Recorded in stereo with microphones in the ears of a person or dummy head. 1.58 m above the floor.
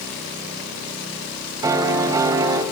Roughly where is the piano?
Right.